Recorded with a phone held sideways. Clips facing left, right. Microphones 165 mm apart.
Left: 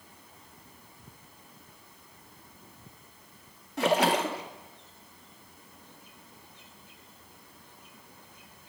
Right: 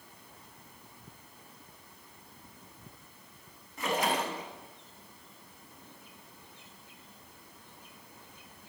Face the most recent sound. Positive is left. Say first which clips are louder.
# left 6 dB
turn(degrees=75)  # may be behind; listen again after turning